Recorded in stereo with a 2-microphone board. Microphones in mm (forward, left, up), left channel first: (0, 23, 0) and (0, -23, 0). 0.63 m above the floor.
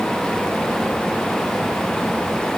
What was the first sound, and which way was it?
Only background noise.